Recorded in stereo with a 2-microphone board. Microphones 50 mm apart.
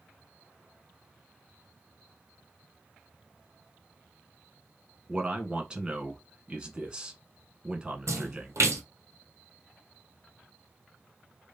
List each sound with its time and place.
5.1 s a man speaking: 20° right (ahead or behind), 1.0 m
8.1 s a splash: 75° right (ahead or behind), 1.0 m